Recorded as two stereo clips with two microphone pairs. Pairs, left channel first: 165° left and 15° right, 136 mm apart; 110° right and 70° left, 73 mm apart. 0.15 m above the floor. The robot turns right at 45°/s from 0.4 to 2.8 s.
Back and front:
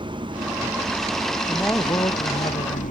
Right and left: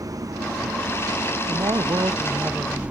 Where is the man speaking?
80° left; by 2.8 s 140° left.